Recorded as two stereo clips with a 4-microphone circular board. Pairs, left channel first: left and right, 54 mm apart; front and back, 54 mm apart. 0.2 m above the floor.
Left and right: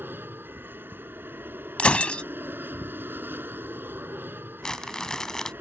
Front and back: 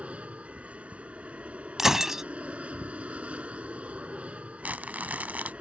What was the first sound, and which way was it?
An aircraft, 125° right.